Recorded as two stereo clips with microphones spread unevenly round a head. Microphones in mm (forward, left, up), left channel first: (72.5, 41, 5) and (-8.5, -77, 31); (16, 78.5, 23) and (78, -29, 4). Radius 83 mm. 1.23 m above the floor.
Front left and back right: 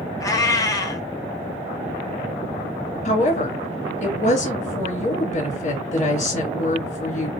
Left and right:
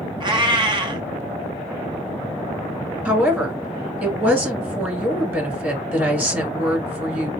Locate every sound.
0.2 s a cat meowing: 15° right, 1.3 m
3.0 s a woman speaking: 20° left, 1.8 m